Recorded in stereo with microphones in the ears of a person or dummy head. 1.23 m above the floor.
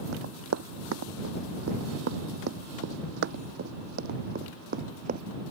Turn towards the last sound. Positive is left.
turn(degrees=-45)  # may be behind; listen again after turning